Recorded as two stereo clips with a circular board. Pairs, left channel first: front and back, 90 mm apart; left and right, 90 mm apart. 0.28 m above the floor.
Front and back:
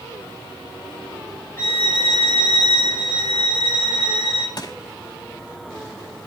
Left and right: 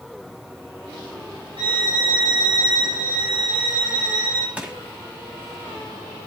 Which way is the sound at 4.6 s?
15° right.